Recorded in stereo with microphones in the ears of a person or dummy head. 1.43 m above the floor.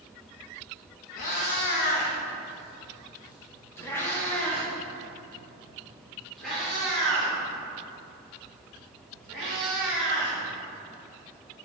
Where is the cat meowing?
45° left (ahead or behind), 0.9 m; by 10.4 s 5° right (ahead or behind), 5 m.